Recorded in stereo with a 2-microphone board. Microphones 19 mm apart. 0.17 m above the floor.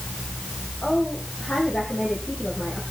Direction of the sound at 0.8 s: 55° left (ahead or behind).